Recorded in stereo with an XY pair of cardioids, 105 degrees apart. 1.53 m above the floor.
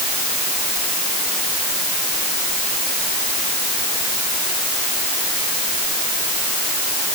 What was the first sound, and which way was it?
Only background noise.